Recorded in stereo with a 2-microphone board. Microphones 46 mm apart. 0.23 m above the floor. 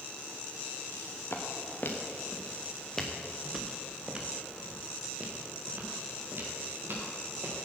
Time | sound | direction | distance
0.9 | footsteps | 65° left (ahead or behind) | 3 m